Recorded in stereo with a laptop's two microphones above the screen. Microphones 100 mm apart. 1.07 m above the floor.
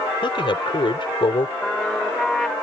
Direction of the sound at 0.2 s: 60° left (ahead or behind).